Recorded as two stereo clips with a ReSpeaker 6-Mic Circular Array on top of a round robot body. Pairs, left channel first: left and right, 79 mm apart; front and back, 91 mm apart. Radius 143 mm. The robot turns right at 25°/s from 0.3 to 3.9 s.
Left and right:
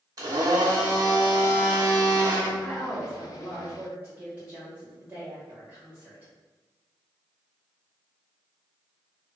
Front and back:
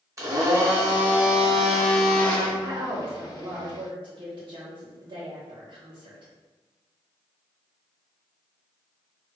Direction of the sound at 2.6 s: 165° left.